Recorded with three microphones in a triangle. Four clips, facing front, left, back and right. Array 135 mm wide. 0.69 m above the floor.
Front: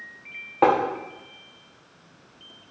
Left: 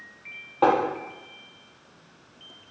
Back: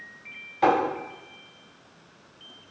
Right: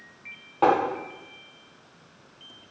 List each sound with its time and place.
0.6 s tapping: 5° left, 0.8 m